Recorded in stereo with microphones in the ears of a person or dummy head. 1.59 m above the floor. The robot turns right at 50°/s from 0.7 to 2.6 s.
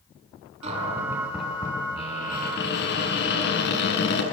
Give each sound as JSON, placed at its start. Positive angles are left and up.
{"t": 0.6, "sound": "a cupboard door", "azimuth_deg": -35, "distance_m": 9.5}